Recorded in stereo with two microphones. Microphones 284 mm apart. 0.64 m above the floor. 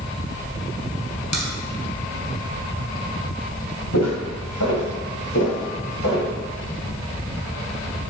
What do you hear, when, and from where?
1.3 s a crack: 70° left (ahead or behind), 2 m
3.9 s footsteps: 65° left (ahead or behind), 3 m; by 6.3 s 55° left (ahead or behind), 6 m